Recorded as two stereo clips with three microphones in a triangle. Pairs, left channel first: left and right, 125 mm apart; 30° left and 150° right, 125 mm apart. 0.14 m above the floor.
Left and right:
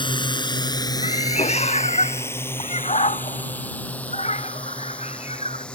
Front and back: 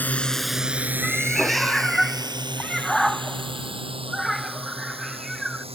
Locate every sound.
0.0 s a drone: 95° left; by 5.8 s 170° left
1.0 s a cat meowing: 120° left